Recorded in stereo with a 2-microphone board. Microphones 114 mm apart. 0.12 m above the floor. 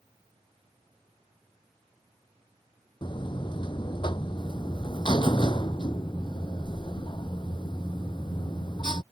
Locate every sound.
3.0 s a buzzer: 45° left (ahead or behind)